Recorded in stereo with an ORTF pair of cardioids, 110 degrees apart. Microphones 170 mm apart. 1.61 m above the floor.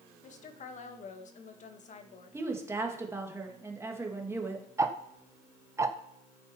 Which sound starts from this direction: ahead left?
A woman speaking, at 0.2 s.